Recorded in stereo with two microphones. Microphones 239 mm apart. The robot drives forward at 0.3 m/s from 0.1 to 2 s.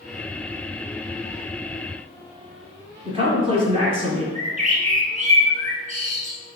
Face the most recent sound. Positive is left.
turn(degrees=-35)  # may be behind; listen again after turning